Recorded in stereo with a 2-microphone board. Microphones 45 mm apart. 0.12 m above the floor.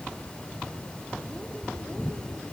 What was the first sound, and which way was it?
Only background noise.